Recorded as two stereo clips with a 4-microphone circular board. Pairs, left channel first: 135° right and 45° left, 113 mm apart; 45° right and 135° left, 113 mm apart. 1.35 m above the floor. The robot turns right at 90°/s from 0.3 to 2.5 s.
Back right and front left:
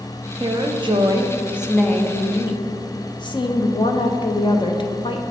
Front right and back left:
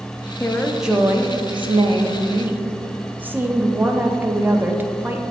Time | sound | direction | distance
0.4 | a woman speaking | 15° left | 0.6 m